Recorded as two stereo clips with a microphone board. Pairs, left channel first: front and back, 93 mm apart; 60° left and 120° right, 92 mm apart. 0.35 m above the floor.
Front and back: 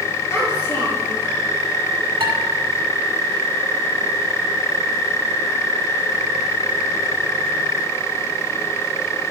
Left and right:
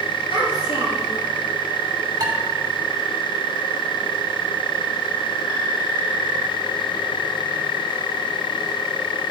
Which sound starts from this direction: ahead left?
A child speaking, at 0.3 s.